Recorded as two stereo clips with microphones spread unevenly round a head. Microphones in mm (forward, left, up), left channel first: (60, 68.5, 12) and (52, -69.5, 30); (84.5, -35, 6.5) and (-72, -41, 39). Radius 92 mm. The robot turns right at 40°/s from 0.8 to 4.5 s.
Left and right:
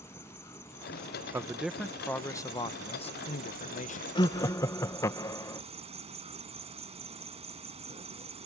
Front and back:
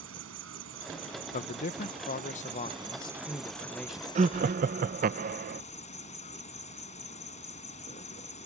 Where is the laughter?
130° left; by 5.6 s 145° left.